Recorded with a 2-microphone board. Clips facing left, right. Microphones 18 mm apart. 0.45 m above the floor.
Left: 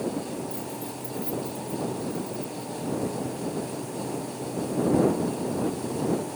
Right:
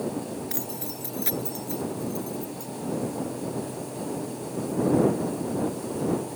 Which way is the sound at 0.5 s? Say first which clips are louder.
Even; 75° right (ahead or behind).